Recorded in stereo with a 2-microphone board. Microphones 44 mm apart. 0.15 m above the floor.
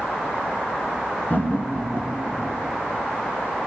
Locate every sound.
1.3 s laughter: 40° left (ahead or behind), 2.0 m; by 2.6 s 45° left (ahead or behind), 3.5 m